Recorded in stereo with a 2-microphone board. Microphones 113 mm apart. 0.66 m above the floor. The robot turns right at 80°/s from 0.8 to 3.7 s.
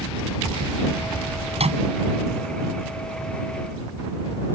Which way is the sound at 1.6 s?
60° right (ahead or behind).